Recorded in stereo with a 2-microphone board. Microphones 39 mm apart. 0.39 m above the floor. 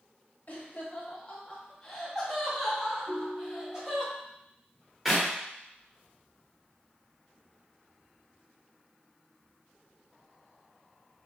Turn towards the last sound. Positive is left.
turn(degrees=0)  # may be behind; listen again after turning